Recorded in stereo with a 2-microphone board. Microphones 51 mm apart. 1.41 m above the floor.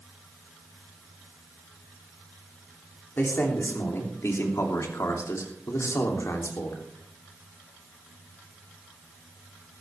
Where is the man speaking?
45° left (ahead or behind), 3 m; by 6.8 s 65° left (ahead or behind), 3.5 m.